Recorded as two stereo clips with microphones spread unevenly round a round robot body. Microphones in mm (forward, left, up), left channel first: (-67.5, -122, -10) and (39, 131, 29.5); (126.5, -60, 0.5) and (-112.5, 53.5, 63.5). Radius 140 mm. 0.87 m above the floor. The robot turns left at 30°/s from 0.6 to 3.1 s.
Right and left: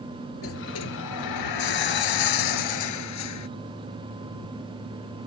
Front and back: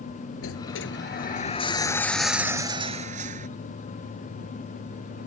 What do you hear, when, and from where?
0.4 s a sliding door: 70° right; by 3.5 s 145° right